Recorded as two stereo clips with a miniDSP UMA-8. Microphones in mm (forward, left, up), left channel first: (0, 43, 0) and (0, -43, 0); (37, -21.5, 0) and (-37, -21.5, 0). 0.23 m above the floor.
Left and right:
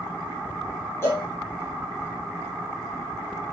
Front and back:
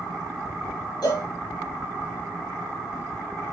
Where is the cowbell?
30° left, 5 m.